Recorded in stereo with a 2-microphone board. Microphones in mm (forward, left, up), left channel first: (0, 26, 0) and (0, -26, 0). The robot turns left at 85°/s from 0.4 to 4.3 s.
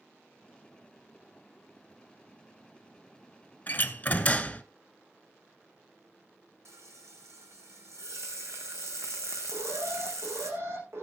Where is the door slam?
105° left, 1.0 m; by 4.6 s 50° left, 1.0 m.